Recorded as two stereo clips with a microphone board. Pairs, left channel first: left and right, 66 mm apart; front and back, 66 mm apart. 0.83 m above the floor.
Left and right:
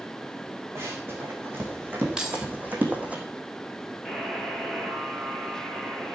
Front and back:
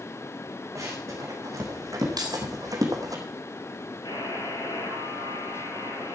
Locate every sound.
0.8 s running footsteps: 140° right, 4 m; by 3.2 s 155° right, 2.5 m
2.2 s keys jangling: 170° right, 2.5 m
4.0 s a buzzer: straight ahead, 6.5 m